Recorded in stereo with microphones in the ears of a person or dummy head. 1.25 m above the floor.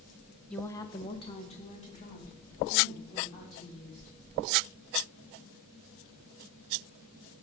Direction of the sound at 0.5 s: 10° left (ahead or behind).